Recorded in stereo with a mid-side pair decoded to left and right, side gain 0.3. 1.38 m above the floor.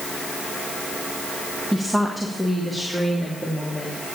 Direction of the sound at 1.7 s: 15° right.